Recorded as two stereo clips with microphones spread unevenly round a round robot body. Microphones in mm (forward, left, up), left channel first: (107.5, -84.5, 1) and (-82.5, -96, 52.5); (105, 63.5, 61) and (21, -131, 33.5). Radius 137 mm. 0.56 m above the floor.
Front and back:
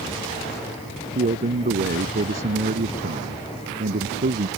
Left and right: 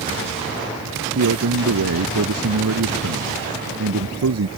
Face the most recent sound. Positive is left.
turn(degrees=-135)